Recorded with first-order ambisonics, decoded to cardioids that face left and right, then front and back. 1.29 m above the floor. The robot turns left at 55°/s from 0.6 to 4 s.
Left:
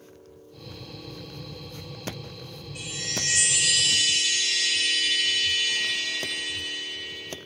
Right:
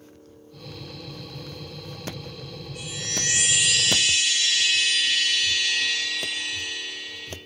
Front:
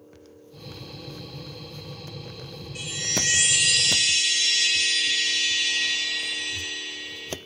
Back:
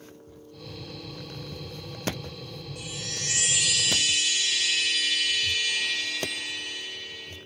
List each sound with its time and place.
2.8 s a chime: 10° left, 1.6 m; by 7.3 s 60° right, 1.6 m